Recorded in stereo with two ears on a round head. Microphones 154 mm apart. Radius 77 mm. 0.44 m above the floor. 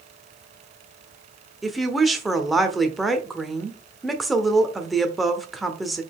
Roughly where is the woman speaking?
Centre.